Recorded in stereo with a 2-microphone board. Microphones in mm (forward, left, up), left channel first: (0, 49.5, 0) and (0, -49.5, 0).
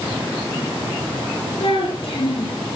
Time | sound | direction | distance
1.6 | a child speaking | 65° left (ahead or behind) | 5.5 m